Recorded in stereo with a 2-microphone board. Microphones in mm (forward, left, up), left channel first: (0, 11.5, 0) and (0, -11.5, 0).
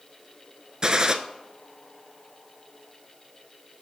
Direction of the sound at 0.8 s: 30° right (ahead or behind).